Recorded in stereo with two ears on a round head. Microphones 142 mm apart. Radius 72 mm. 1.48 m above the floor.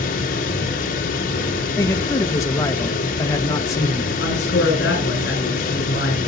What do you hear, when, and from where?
0.0 s running water: 55° left (ahead or behind), 3 m
1.8 s a man speaking: 20° left (ahead or behind), 1.3 m
4.2 s a man speaking: 70° left (ahead or behind), 8.5 m